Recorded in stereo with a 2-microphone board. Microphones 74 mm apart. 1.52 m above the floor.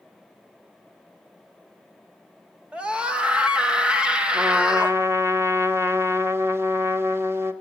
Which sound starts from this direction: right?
A trumpet, at 4.3 s.